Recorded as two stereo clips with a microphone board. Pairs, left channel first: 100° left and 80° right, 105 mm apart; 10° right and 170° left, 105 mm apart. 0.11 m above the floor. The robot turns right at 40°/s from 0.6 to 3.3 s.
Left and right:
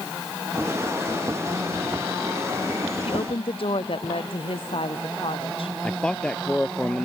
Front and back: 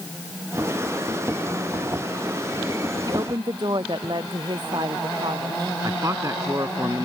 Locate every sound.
3.0 s a woman speaking: 120° left; by 5.7 s 130° left
5.8 s a man speaking: 175° left